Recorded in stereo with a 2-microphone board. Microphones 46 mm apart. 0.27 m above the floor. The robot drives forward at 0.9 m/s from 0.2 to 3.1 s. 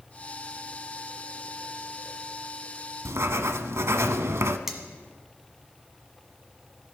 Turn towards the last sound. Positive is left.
turn(degrees=-10)  # may be behind; listen again after turning